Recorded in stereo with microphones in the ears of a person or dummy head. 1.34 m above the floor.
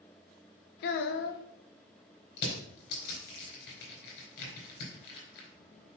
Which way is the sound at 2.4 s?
50° left (ahead or behind).